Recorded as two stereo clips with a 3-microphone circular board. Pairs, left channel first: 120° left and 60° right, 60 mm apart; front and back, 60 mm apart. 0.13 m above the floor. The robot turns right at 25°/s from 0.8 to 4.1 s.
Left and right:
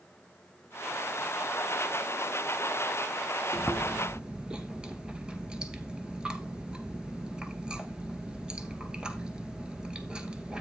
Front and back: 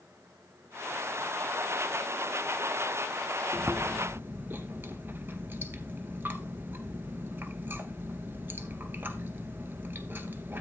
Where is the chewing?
145° right, 0.9 m; by 10.6 s 135° right, 0.9 m.